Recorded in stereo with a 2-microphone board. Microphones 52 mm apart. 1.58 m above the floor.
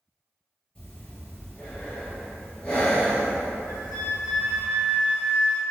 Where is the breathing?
20° left (ahead or behind), 1.7 m.